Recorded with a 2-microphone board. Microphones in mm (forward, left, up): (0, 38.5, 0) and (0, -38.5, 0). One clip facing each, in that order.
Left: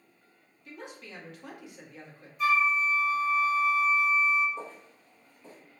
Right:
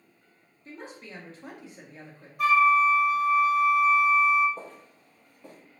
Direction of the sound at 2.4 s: 60° right (ahead or behind).